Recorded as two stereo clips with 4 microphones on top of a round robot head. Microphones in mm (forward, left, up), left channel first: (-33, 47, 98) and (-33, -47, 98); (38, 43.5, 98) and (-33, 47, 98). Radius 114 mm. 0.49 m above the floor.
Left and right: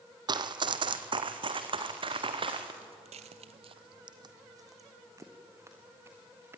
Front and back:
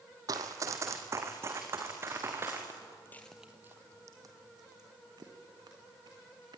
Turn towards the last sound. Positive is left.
turn(degrees=-155)